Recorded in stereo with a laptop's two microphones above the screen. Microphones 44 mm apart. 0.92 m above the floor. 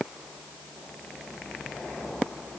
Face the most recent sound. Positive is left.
No sound to turn to.